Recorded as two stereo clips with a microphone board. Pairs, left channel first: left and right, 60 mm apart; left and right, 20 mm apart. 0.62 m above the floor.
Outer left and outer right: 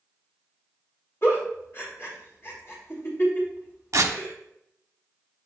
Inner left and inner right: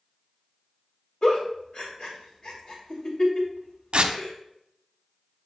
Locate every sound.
1.2 s a giggle: 50° left (ahead or behind), 2.5 m
3.9 s tearing paper: 60° right (ahead or behind), 0.8 m